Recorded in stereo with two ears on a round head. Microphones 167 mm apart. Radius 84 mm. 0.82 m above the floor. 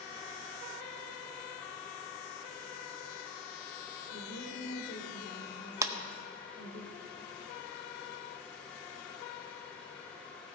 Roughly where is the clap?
Centre.